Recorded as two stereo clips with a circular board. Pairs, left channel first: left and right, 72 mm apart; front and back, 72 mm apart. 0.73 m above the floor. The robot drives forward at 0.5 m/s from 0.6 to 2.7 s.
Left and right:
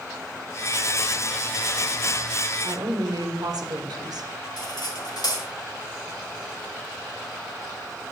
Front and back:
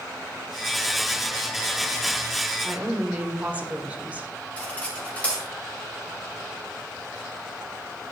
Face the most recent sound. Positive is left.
turn(degrees=70)